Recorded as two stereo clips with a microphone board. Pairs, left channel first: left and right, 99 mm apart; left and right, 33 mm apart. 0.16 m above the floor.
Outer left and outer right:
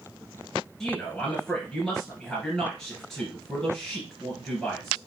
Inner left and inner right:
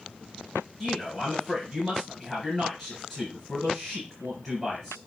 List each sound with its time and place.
0.8 s a man speaking: 5° left (ahead or behind), 2.5 m